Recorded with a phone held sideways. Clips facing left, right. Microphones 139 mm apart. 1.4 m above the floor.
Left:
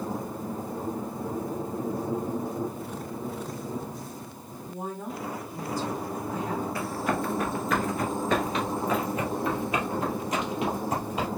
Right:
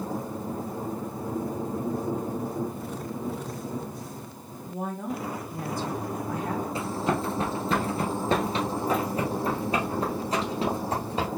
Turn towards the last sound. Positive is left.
turn(degrees=-30)  # may be behind; listen again after turning